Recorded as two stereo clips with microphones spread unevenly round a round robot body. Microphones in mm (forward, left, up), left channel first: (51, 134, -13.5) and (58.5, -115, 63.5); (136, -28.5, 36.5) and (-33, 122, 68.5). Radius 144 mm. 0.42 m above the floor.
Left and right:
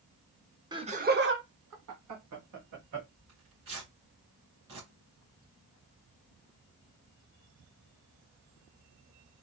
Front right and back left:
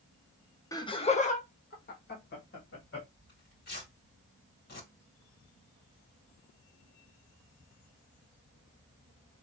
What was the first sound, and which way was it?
Laughter, straight ahead.